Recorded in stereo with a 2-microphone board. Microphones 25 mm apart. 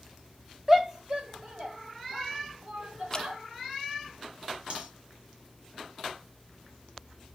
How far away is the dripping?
About 0.8 m.